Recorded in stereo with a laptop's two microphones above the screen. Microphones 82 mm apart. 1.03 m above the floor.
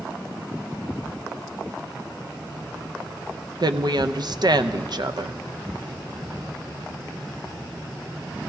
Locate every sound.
3.6 s a woman speaking: 60° right (ahead or behind), 0.5 m